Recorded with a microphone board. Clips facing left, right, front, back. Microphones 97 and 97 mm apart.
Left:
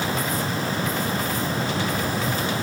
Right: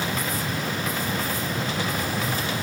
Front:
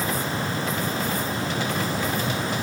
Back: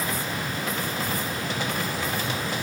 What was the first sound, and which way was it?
Only background noise.